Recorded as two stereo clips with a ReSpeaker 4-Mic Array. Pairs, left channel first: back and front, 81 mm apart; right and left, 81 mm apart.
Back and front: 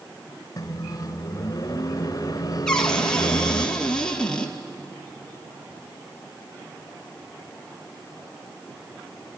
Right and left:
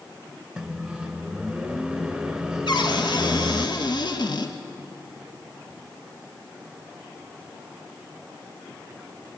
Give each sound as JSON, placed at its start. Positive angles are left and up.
{"t": 0.6, "sound": "a microwave", "azimuth_deg": 170, "distance_m": 1.2}
{"t": 2.7, "sound": "a cupboard door", "azimuth_deg": -100, "distance_m": 2.0}